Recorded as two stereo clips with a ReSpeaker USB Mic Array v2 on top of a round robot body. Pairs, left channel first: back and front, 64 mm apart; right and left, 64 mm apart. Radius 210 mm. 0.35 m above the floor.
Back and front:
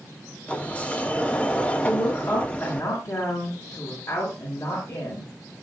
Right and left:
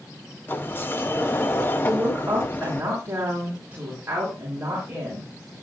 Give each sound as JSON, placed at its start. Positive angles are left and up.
{"t": 0.5, "sound": "a sliding door", "azimuth_deg": -120, "distance_m": 1.6}
{"t": 1.8, "sound": "a woman speaking", "azimuth_deg": 150, "distance_m": 6.0}